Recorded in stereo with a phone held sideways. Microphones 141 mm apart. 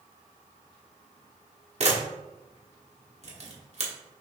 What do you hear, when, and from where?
1.8 s a camera shutter: 50° right (ahead or behind), 1.1 m